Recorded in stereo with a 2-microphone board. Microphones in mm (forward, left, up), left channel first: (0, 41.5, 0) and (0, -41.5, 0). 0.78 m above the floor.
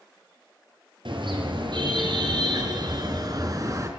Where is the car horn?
70° right (ahead or behind), 6.5 m; by 3.9 s 40° right (ahead or behind), 3.5 m.